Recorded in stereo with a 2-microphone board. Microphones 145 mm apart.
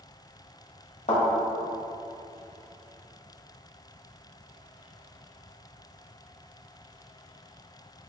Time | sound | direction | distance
1.1 | a thud | 55° left (ahead or behind) | 1.4 m